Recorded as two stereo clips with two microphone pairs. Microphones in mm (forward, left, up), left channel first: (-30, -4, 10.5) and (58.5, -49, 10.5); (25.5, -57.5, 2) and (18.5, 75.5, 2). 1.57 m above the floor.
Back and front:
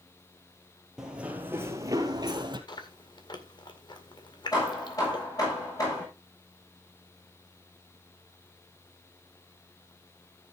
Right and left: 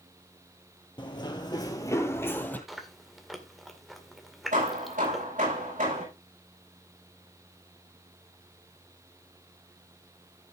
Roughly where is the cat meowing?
No cat meowing in this recording.